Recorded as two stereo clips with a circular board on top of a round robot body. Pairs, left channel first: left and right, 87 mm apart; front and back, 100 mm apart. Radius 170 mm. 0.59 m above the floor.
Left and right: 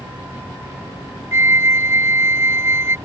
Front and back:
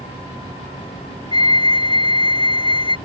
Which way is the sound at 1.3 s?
30° right.